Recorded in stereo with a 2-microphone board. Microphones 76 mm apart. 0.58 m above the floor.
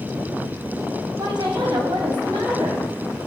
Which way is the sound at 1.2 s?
75° right (ahead or behind).